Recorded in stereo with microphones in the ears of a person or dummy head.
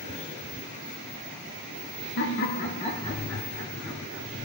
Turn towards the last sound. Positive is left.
turn(degrees=-5)  # may be behind; listen again after turning